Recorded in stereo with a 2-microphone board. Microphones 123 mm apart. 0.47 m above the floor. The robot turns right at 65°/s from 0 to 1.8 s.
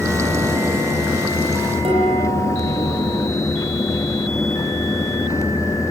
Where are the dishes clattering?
50° right (ahead or behind), 10 m.